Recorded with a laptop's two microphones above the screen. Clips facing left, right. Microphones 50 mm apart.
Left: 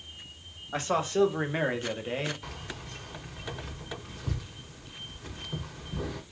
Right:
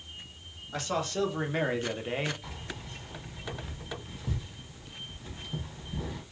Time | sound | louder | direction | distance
0.7 | a man speaking | left 4 dB | 30° left (ahead or behind) | 1.2 m
2.4 | keys jangling | left 1 dB | 75° left (ahead or behind) | 1.4 m